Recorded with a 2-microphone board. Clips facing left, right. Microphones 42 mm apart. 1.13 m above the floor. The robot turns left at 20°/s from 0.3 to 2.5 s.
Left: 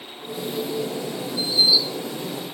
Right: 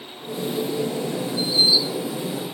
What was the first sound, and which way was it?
Only background noise.